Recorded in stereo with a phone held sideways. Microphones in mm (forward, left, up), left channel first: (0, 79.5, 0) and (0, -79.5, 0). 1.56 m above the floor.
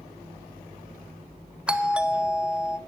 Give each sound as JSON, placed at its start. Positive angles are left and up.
{"t": 1.7, "sound": "a doorbell", "side_deg": -5, "distance_m": 0.6}